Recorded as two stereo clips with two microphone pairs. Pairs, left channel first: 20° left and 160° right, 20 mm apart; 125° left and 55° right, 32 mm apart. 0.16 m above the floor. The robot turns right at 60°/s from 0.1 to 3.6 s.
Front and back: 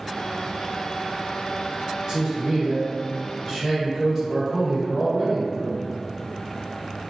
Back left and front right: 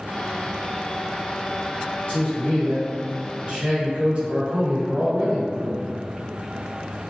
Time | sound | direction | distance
2.1 | a man speaking | 155° left | 1.7 m